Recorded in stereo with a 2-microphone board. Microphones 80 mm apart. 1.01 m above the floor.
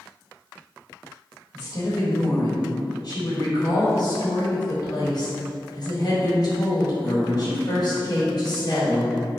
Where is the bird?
No bird in this recording.